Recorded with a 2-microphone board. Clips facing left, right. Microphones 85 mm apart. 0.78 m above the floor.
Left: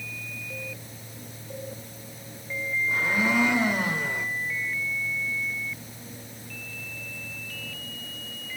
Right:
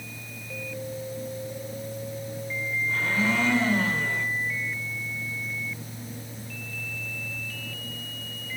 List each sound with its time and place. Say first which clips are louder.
2.9 s a blender: left 1 dB; 20° left (ahead or behind), 1.9 m